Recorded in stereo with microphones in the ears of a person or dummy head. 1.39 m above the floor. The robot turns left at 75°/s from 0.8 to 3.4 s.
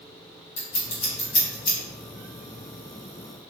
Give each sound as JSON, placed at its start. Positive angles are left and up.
{"t": 0.6, "sound": "scissors", "side_deg": 65, "distance_m": 1.1}